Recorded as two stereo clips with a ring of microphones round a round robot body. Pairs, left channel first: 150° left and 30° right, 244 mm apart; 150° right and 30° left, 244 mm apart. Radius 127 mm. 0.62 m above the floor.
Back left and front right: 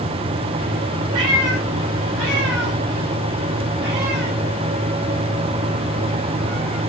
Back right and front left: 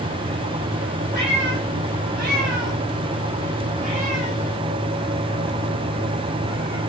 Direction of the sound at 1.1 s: 20° right.